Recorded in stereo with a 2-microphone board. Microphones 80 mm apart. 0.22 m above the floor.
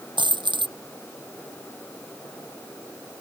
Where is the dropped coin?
75° right (ahead or behind).